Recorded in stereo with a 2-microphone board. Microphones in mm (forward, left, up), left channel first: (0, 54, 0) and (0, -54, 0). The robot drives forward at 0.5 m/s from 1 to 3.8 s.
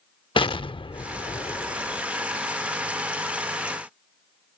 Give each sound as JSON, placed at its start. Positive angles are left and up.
{"t": 0.4, "sound": "an explosion", "side_deg": 55}